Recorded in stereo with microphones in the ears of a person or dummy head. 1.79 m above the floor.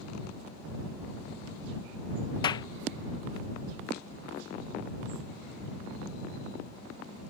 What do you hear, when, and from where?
2.4 s a clap: 25° left (ahead or behind)